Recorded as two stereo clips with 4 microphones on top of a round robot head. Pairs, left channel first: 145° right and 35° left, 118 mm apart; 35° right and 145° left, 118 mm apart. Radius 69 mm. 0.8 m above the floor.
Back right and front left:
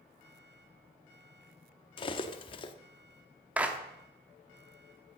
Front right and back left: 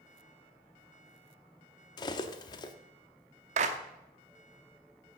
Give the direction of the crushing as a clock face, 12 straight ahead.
No crushing in this recording.